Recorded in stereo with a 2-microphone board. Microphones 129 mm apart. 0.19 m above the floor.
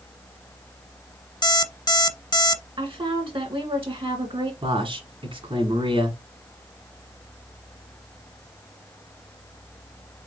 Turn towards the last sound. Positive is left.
turn(degrees=-45)  # may be behind; listen again after turning